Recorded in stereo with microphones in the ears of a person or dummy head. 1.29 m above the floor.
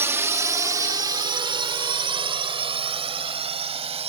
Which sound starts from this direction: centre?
A drone, at 0.0 s.